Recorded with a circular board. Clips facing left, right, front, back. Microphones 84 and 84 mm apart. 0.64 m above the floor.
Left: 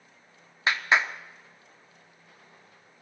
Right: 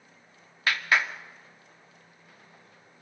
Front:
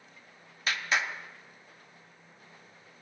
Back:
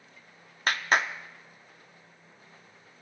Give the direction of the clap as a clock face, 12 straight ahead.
7 o'clock.